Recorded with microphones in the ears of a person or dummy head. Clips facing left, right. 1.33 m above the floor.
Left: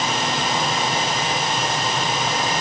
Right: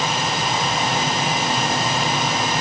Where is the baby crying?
No baby crying in this recording.